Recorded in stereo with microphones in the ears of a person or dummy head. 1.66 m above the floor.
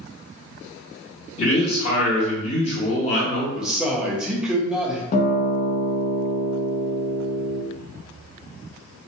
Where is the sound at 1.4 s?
35° left (ahead or behind), 1.4 m.